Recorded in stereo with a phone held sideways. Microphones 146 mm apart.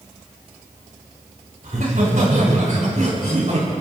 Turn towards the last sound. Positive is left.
turn(degrees=-55)  # may be behind; listen again after turning